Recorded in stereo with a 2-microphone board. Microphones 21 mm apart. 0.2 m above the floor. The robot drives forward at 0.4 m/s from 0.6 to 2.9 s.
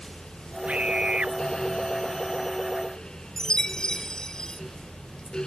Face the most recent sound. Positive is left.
turn(degrees=35)  # may be behind; listen again after turning